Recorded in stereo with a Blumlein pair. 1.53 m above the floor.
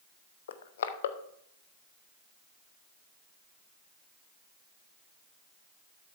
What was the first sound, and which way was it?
Crushing, 60° left.